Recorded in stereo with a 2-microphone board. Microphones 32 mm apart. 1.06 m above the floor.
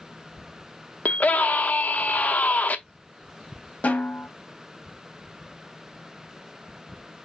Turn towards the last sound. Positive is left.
turn(degrees=50)  # may be behind; listen again after turning